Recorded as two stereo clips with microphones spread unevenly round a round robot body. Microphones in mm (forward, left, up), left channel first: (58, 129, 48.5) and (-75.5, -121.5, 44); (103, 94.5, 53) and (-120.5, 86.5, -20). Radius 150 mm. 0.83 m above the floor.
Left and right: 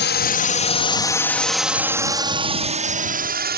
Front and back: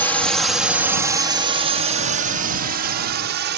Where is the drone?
100° left; by 3.6 s 170° right.